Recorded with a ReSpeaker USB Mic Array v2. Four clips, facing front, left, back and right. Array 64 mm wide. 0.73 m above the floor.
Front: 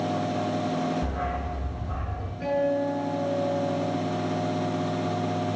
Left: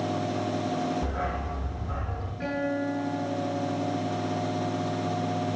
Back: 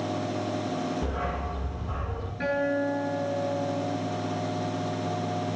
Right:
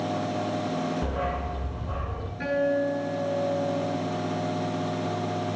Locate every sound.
1.0 s a dog barking: 115° right, 5.5 m
2.4 s a guitar: 160° right, 8 m